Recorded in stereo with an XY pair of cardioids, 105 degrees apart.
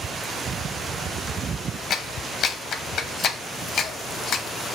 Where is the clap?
55° left, 0.7 m.